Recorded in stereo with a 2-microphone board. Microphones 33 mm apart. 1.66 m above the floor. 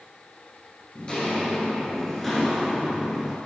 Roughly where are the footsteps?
Left.